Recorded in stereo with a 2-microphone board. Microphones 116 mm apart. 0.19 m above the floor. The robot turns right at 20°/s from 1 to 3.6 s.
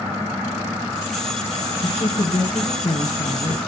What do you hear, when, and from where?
1.8 s a woman speaking: 70° left, 3 m; by 3.6 s 105° left, 3 m